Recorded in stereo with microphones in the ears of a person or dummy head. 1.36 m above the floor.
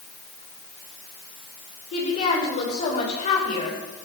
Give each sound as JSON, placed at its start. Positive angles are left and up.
{"t": 1.9, "sound": "a woman speaking", "side_deg": 40, "distance_m": 4.0}